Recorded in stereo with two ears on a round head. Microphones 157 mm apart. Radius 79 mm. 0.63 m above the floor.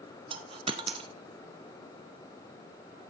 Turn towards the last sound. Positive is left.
turn(degrees=-30)  # may be behind; listen again after turning